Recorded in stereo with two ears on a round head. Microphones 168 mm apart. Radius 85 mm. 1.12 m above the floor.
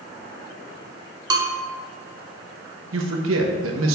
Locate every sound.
1.3 s a bell: 20° right (ahead or behind), 1.2 m
2.9 s a man speaking: 75° right (ahead or behind), 1.2 m